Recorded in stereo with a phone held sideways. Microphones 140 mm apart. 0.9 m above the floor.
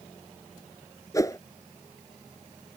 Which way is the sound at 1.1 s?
25° left (ahead or behind).